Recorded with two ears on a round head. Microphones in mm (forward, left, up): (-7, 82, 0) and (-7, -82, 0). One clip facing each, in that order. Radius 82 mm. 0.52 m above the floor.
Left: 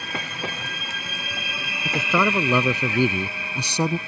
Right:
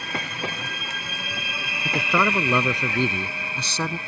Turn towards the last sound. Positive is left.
turn(degrees=15)  # may be behind; listen again after turning